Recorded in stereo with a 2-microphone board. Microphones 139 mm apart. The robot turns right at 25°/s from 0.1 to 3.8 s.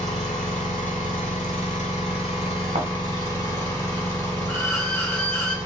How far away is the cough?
I don't hear a cough.